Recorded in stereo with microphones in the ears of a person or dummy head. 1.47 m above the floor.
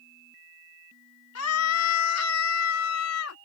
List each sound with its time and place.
1.4 s a scream: 85° left; by 3.4 s 75° left (ahead or behind)